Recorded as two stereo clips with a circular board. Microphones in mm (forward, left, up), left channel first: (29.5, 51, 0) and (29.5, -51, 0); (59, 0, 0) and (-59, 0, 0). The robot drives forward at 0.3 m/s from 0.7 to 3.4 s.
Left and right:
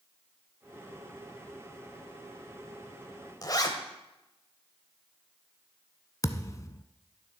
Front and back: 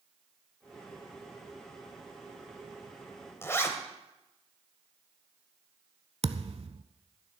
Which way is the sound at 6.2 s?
145° left.